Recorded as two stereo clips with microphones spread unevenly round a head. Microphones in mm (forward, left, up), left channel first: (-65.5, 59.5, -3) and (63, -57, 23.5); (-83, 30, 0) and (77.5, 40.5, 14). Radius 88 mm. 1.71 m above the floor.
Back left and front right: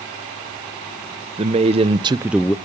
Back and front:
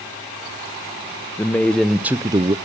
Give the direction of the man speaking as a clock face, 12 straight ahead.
3 o'clock.